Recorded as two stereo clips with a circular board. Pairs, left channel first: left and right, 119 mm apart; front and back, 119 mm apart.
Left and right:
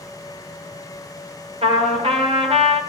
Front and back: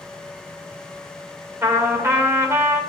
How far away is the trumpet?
About 2 m.